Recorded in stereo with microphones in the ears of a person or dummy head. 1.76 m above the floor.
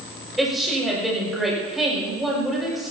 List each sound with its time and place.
0.4 s a woman speaking: centre (ahead or behind), 6 m